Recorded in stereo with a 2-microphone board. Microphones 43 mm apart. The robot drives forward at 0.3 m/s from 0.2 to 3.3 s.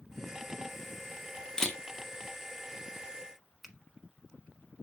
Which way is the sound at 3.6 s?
Centre (ahead or behind).